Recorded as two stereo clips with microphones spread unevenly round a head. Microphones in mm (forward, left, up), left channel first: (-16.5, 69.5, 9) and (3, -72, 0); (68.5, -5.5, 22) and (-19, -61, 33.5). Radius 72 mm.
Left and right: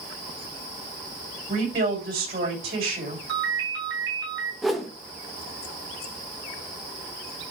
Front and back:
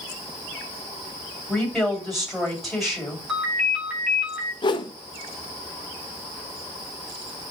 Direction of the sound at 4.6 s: 5° left.